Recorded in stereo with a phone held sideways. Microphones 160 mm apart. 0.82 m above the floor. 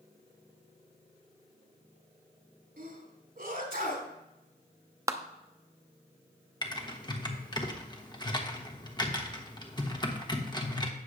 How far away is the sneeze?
About 3 m.